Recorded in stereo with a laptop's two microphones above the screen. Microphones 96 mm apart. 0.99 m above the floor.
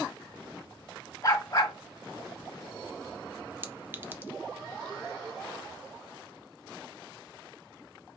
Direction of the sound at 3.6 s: 20° right (ahead or behind).